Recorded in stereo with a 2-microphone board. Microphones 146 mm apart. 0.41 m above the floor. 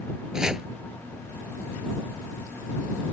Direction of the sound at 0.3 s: 5° right (ahead or behind).